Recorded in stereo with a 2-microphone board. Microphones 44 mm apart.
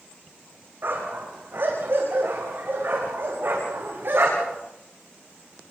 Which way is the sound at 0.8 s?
55° right (ahead or behind).